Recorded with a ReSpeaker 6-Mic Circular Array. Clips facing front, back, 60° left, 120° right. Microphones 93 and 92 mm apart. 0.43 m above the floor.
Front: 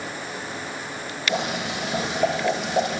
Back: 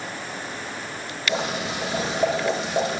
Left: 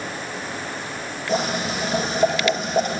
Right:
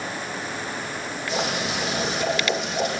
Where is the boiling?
110° left, 9.5 m.